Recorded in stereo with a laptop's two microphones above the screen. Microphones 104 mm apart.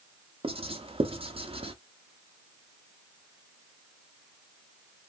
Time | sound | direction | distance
0.4 | writing | 55° right (ahead or behind) | 0.8 m